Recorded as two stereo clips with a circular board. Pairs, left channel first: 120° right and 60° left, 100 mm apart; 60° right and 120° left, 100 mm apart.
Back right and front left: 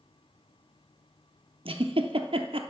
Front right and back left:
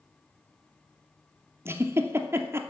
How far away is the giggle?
About 0.9 m.